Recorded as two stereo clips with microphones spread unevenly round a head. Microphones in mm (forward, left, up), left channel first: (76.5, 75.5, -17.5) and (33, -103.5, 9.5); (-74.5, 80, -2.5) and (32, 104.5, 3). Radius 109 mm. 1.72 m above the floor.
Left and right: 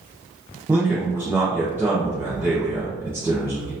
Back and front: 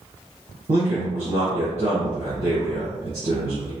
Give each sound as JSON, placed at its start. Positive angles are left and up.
{"t": 0.7, "sound": "a man speaking", "azimuth_deg": -25, "distance_m": 1.2}